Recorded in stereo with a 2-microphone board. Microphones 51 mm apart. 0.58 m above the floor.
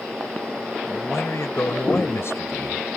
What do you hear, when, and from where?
0.9 s a man speaking: 60° left (ahead or behind)